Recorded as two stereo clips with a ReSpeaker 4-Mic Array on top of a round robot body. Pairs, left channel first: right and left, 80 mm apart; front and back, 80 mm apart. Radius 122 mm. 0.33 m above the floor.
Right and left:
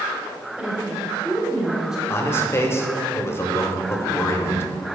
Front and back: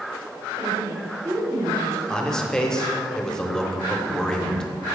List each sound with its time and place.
0.6 s a woman speaking: 165° left, 1.8 m
2.1 s a man speaking: 75° right, 0.9 m